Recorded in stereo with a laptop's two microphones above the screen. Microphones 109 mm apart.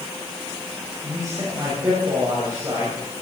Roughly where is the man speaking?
Right.